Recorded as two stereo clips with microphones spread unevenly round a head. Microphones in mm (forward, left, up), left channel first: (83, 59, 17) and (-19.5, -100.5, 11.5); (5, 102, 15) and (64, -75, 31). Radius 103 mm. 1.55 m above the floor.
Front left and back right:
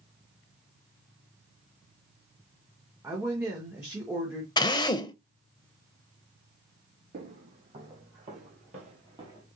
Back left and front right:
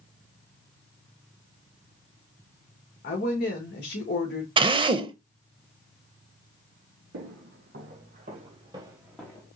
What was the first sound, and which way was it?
A woman speaking, 160° left.